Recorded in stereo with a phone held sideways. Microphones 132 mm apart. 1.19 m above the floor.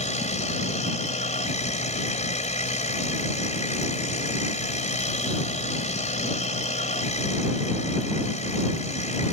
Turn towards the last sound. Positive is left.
turn(degrees=60)  # may be behind; listen again after turning